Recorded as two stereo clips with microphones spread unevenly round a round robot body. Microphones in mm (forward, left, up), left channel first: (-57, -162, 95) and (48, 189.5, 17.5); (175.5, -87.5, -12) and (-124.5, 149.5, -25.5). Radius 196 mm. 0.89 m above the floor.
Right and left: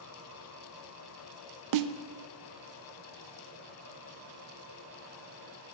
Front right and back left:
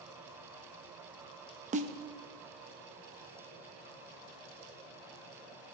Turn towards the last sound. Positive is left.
turn(degrees=75)